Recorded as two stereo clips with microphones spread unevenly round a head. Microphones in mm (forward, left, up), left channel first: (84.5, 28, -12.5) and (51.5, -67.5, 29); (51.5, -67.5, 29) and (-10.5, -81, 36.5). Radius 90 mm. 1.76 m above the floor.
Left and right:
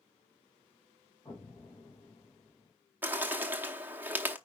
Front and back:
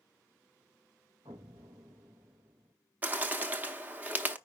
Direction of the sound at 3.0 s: 125° right.